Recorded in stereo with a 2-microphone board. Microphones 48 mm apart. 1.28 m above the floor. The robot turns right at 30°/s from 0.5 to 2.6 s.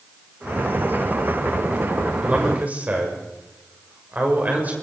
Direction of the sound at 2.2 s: 25° right (ahead or behind).